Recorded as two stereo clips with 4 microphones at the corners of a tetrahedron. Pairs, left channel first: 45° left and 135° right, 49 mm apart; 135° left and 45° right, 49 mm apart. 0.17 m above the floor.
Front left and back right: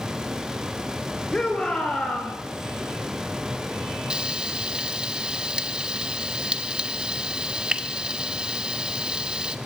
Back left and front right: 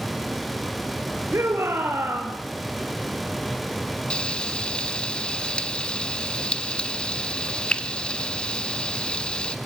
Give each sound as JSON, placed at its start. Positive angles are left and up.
{"t": 1.3, "sound": "a shout", "azimuth_deg": -25, "distance_m": 2.5}
{"t": 4.1, "sound": "frying", "azimuth_deg": 175, "distance_m": 1.1}